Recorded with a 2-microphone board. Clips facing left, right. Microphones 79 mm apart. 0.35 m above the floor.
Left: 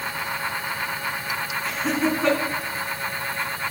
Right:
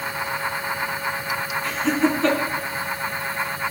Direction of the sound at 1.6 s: 10° left (ahead or behind).